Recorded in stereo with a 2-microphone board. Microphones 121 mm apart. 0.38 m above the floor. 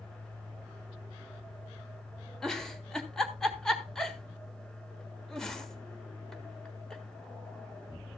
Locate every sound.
2.4 s a giggle: 5° left (ahead or behind), 1.5 m